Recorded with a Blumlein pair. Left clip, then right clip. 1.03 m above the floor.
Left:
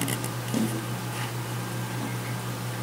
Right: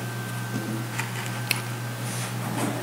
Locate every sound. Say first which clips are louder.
0.5 s a snare drum: left 4 dB; 25° left, 5 m